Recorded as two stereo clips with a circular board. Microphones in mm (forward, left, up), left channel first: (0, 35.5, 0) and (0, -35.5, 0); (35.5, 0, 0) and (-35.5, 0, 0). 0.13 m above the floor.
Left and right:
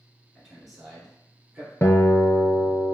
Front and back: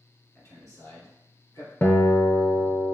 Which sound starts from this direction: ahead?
A man speaking, at 0.3 s.